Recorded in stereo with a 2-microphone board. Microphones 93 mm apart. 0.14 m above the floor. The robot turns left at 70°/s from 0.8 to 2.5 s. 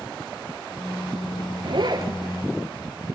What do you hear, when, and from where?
1.6 s a zipper: 105° right, 1.2 m; by 2.1 s 135° right, 1.2 m